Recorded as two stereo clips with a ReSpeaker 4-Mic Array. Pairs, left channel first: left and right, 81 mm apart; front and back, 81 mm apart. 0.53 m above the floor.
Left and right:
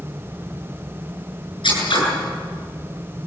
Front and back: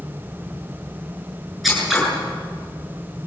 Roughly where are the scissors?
Left.